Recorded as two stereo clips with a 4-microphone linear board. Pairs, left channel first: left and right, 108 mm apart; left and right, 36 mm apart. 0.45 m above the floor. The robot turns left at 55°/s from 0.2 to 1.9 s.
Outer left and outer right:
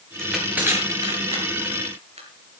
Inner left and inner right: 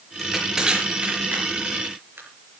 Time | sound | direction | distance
0.2 | crushing | 5° left (ahead or behind) | 6 m